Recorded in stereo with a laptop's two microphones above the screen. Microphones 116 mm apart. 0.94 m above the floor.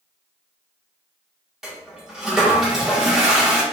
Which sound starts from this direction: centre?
A toilet flushing, at 1.6 s.